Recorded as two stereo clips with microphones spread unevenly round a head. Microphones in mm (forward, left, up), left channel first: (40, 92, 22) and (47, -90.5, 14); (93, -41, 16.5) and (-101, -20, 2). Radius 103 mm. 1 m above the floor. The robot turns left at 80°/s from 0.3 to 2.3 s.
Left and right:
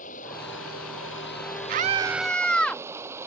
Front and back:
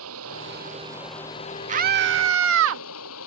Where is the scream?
135° right; by 2.8 s straight behind.